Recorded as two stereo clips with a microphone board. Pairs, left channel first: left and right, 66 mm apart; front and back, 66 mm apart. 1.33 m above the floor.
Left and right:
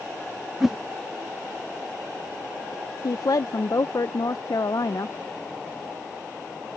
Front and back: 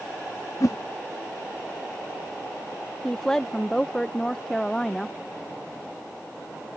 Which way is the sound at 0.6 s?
5° right.